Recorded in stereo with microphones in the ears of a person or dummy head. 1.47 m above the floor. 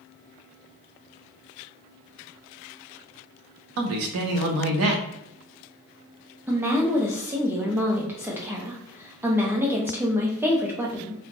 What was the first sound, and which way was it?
A man speaking, 75° right (ahead or behind).